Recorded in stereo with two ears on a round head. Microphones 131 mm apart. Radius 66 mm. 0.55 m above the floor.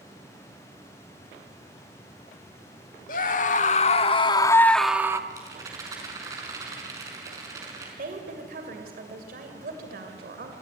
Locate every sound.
3.1 s a scream: 60° left (ahead or behind), 1.8 m; by 5.2 s 20° right (ahead or behind), 0.9 m
5.3 s a rattle: 25° right (ahead or behind), 5.5 m
8.0 s a woman speaking: 65° right (ahead or behind), 2.5 m